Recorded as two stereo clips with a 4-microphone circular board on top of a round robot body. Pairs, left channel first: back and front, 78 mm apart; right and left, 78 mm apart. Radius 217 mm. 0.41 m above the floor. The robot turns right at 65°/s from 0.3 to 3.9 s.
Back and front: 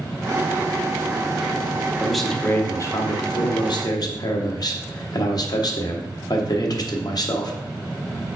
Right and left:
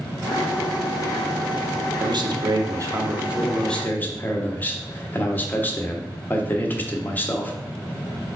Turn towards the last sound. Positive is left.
turn(degrees=-155)